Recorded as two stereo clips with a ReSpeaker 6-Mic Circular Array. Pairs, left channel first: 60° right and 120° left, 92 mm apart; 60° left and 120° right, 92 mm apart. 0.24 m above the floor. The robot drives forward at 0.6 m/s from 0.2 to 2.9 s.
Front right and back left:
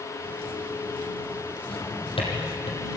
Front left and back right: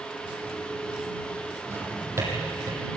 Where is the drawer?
55° right, 5.5 m; by 2.8 s 60° right, 5 m.